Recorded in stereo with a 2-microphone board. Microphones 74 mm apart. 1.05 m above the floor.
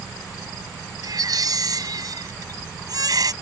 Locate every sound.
1.0 s a baby crying: 60° right (ahead or behind)